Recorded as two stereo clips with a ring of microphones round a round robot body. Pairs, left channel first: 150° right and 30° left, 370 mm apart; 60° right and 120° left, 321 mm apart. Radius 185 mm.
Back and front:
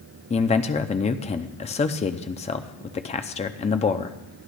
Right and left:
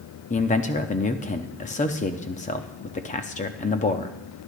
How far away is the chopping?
No chopping in this recording.